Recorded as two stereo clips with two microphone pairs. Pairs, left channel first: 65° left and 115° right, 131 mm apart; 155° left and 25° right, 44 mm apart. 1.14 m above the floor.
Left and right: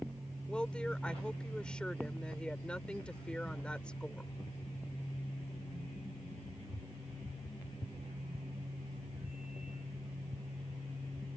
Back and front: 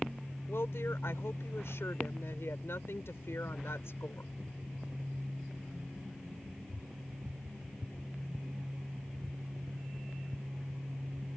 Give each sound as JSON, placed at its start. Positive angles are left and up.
{"t": 0.5, "sound": "a woman speaking", "azimuth_deg": 145}